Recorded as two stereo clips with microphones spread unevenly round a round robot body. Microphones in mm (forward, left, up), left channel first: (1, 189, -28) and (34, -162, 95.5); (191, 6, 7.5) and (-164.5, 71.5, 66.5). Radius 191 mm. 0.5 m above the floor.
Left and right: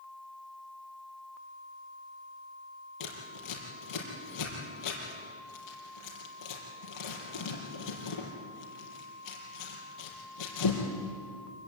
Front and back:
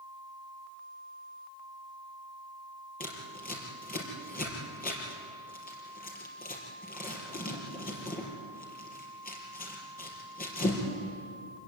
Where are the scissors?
60° left, 4.5 m.